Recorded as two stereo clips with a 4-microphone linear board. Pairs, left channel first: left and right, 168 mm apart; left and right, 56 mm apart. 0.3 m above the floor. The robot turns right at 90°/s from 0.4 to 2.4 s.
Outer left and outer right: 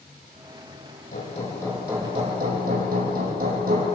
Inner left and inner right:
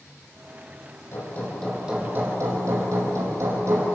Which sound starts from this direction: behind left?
Hammering, at 1.1 s.